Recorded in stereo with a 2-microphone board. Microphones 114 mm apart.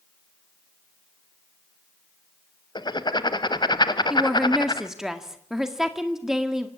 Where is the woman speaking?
5° right (ahead or behind), 1.8 m.